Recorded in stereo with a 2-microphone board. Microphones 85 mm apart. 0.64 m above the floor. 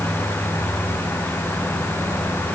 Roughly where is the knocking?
I don't hear knocking.